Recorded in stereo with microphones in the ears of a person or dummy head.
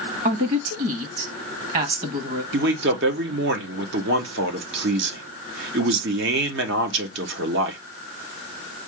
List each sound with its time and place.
0.2 s a woman speaking: 50° right (ahead or behind), 1.4 m
2.5 s a man speaking: 65° right (ahead or behind), 1.1 m